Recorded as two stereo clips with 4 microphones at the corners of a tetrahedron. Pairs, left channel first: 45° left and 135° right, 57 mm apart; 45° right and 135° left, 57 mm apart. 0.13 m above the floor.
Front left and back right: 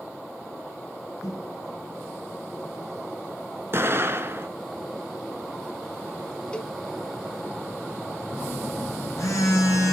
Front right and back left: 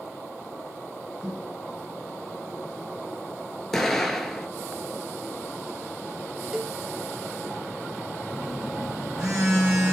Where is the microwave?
60° left, 4 m.